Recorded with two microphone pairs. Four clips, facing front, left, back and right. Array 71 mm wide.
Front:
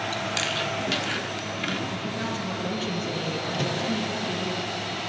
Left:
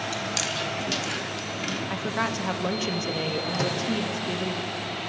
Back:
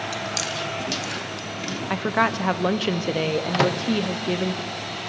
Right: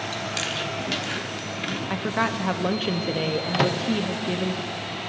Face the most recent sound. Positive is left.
turn(degrees=-150)